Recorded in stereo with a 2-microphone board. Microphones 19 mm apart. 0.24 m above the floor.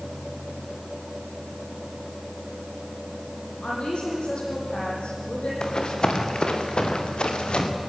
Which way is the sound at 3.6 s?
65° left (ahead or behind).